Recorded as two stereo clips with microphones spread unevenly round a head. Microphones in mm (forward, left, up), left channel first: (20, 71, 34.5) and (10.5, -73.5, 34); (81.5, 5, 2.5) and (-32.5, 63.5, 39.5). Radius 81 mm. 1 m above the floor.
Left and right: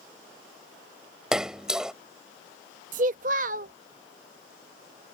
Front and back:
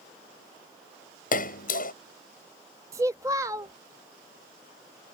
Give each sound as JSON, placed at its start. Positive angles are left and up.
{"t": 1.3, "sound": "a splash", "azimuth_deg": -5}
{"t": 2.9, "sound": "a child speaking", "azimuth_deg": -135}